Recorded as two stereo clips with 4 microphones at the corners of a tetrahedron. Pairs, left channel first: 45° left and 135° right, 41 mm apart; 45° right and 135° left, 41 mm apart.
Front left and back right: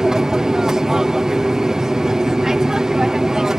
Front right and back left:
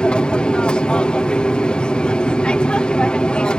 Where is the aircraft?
75° right.